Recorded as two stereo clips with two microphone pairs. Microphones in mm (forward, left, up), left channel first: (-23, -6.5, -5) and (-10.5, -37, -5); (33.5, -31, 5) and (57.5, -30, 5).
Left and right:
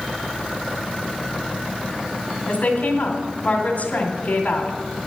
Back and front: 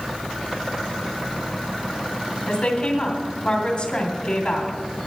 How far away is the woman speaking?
About 2.5 m.